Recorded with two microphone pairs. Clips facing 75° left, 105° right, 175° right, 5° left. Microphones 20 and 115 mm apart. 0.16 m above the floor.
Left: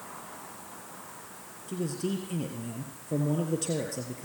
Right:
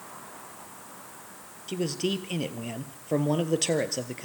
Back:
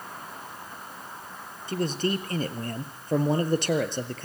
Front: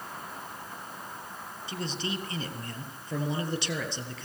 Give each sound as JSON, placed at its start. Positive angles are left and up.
{"t": 1.7, "sound": "a man speaking", "azimuth_deg": -140, "distance_m": 2.5}